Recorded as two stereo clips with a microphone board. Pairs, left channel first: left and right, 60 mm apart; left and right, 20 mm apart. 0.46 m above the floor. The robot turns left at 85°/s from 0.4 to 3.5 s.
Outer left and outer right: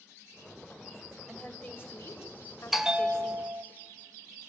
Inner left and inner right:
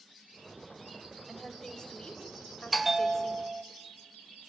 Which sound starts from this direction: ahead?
A bell, at 2.7 s.